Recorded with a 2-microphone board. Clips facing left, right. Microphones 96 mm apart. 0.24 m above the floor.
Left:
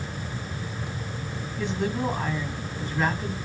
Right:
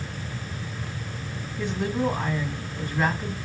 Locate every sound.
1.6 s a woman speaking: 5° right (ahead or behind), 1.9 m